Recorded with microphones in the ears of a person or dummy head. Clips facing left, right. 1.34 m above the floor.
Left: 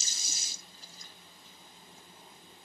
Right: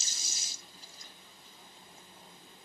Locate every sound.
Only background noise.